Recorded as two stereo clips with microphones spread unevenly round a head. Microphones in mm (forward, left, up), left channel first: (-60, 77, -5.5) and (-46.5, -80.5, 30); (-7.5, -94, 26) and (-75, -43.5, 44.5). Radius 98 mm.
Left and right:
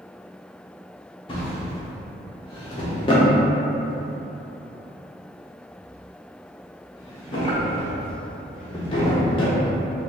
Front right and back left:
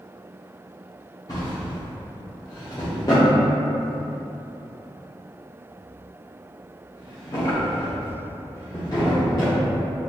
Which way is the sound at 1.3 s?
30° left.